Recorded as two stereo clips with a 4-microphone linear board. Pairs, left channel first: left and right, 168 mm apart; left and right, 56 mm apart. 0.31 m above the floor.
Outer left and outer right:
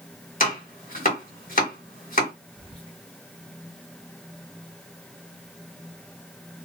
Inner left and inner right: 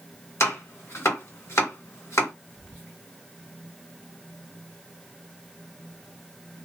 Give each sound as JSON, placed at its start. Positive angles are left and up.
{"t": 0.4, "sound": "chopping", "side_deg": 55, "distance_m": 2.0}
{"t": 2.5, "sound": "whispering", "side_deg": 35, "distance_m": 1.7}